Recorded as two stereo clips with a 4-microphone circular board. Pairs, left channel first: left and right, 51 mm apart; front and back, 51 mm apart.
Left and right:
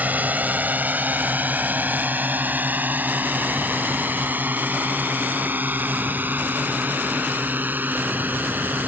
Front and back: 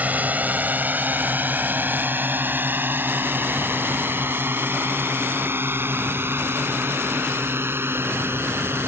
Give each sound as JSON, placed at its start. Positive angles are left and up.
{"t": 0.0, "sound": "a drone", "azimuth_deg": -135}